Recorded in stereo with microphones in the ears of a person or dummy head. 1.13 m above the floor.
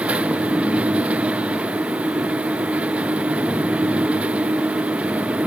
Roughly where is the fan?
Centre.